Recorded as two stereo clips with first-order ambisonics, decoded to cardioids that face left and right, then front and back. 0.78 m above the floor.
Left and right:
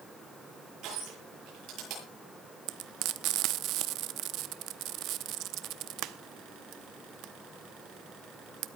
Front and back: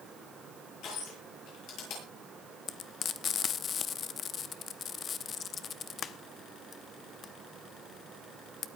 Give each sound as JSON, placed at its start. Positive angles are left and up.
{"t": 0.8, "sound": "crushing", "azimuth_deg": -50, "distance_m": 10.0}
{"t": 2.7, "sound": "frying", "azimuth_deg": -60, "distance_m": 0.8}